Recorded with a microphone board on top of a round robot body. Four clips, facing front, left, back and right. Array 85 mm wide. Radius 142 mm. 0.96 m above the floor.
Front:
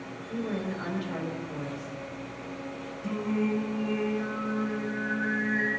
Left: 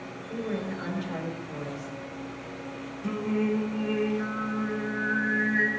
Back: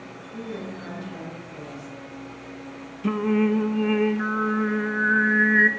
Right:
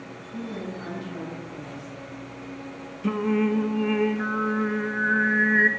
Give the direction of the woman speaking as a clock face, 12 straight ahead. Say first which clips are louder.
Left 2 dB, front 2 dB; 11 o'clock.